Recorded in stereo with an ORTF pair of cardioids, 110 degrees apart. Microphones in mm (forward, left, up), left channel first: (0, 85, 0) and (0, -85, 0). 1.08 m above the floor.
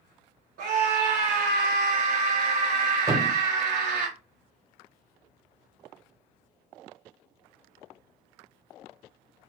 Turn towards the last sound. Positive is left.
turn(degrees=-20)